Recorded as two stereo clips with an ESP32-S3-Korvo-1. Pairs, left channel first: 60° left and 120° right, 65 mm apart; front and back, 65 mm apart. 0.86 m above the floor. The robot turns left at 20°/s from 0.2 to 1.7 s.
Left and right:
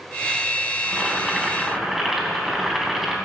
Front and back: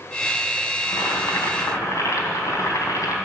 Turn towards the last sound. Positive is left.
turn(degrees=-35)